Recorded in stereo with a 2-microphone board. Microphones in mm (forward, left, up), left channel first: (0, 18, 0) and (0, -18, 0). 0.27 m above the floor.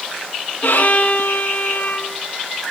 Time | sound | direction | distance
0.6 | a violin | 65° left (ahead or behind) | 1.0 m